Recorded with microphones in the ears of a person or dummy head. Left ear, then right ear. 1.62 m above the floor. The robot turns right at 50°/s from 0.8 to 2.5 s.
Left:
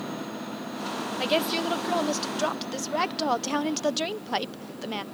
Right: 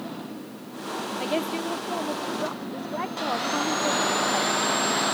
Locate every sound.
1.2 s a woman speaking: 30° left; by 5.0 s 95° left